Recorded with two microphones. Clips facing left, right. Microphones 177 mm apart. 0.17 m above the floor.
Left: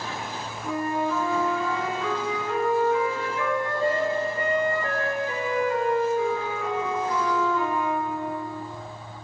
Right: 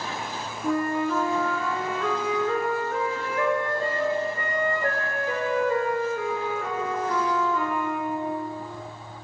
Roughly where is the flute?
Right.